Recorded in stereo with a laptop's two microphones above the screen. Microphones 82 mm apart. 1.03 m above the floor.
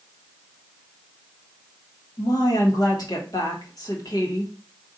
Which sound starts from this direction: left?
A woman speaking, at 2.2 s.